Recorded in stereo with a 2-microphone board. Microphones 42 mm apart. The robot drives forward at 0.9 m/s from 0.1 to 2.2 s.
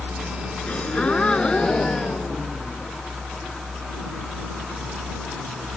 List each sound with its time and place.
0.7 s a gasp: 30° left (ahead or behind); by 2.9 s 15° left (ahead or behind)